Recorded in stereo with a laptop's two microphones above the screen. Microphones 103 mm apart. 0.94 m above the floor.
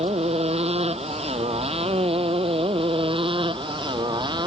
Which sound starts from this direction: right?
A motorcycle, at 0.0 s.